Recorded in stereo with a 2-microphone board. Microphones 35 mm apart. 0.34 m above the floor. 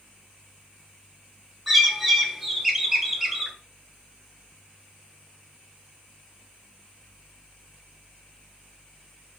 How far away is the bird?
About 1.1 m.